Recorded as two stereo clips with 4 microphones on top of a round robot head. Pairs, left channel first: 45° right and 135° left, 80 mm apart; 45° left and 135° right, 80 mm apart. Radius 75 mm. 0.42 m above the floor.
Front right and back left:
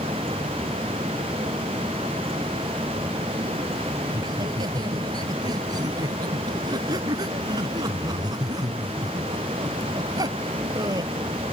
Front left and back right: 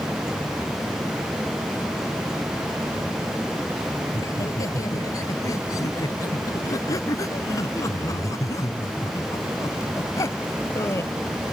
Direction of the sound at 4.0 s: 95° left.